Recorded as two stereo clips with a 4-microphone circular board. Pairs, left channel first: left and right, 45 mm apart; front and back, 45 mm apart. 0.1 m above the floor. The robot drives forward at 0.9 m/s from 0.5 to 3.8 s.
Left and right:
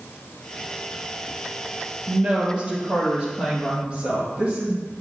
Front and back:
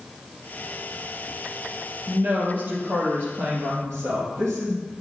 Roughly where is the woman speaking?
Behind right.